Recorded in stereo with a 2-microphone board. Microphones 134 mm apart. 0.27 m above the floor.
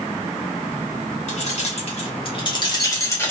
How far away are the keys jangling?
About 1.5 m.